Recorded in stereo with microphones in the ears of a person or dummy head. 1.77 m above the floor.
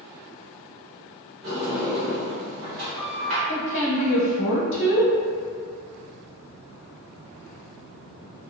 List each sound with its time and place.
1.4 s a sliding door: 60° right (ahead or behind), 1.0 m
3.5 s a woman speaking: 65° left (ahead or behind), 0.7 m